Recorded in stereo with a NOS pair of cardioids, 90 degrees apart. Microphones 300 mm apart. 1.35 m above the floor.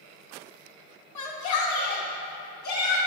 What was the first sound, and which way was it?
A shout, 60° left.